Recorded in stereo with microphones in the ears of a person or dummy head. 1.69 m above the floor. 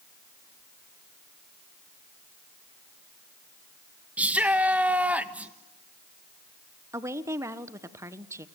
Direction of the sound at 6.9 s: 10° right (ahead or behind).